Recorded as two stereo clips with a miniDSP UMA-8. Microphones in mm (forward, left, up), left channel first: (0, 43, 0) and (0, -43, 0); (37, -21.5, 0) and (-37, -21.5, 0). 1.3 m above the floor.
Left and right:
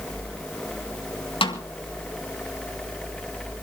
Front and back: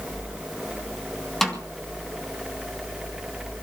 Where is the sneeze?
No sneeze in this recording.